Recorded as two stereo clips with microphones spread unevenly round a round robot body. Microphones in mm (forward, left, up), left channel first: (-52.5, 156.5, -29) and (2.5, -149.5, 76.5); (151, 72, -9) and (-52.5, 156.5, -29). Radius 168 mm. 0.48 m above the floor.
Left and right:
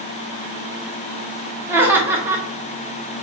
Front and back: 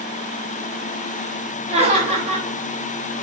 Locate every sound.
1.7 s laughter: 170° left, 1.3 m